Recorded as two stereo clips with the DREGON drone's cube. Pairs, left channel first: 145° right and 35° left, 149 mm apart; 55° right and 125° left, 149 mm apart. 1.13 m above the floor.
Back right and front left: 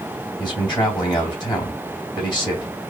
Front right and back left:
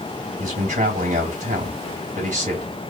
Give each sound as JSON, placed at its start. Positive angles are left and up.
{"t": 0.4, "sound": "a man speaking", "azimuth_deg": 155, "distance_m": 2.0}